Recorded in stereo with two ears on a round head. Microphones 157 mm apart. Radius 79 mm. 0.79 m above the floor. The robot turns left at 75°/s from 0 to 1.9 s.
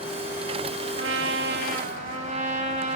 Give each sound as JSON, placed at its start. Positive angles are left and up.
{"t": 1.0, "sound": "a trumpet", "azimuth_deg": -70, "distance_m": 1.6}